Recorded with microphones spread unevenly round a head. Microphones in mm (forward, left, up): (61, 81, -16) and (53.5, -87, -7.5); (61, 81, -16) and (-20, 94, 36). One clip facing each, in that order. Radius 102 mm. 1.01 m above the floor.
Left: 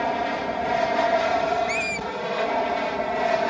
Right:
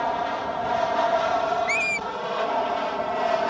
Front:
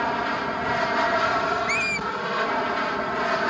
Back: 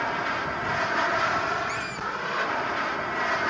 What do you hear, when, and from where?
0.0 s an aircraft: 25° left; by 3.5 s 15° left
1.7 s a squeak: 15° right